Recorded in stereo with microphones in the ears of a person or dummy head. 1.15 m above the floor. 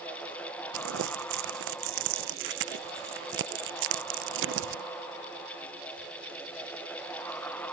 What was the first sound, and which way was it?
Crumpling, 55° right (ahead or behind).